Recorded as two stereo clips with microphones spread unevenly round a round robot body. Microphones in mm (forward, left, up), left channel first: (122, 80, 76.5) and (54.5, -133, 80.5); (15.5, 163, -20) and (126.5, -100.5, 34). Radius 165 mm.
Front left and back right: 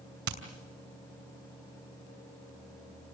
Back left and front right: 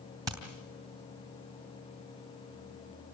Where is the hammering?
150° right, 2.5 m.